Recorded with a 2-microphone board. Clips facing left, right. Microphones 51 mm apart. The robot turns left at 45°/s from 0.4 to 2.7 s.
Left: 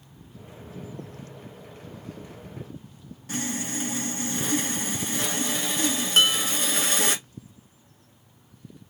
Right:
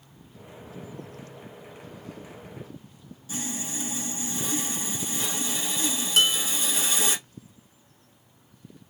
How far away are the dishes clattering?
About 0.8 m.